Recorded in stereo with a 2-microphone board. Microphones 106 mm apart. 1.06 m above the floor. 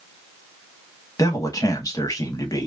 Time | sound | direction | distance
1.2 | a man speaking | 35° left (ahead or behind) | 1.2 m